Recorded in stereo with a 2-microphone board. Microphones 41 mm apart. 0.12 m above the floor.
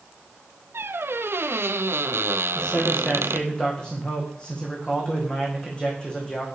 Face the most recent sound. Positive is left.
turn(degrees=25)  # may be behind; listen again after turning